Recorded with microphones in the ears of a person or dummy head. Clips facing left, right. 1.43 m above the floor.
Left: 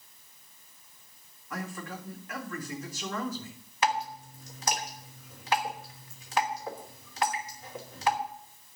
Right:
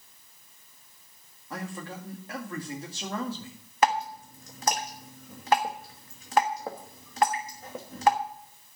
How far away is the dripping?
About 1.4 m.